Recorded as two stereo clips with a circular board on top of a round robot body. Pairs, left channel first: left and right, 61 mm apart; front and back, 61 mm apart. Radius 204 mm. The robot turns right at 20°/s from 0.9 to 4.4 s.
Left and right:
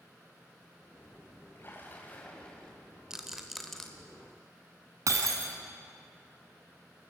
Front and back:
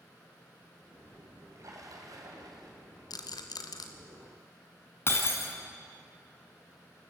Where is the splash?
145° left, 3.5 m; by 2.7 s 170° left, 3.5 m.